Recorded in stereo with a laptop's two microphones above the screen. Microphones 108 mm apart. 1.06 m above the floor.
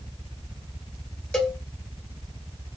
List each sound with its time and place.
1.3 s a cowbell: 10° left (ahead or behind), 1.6 m